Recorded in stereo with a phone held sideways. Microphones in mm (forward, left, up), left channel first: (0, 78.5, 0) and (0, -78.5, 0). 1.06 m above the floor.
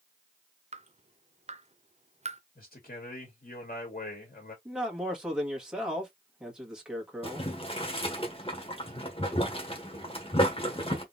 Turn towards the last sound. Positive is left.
turn(degrees=35)  # may be behind; listen again after turning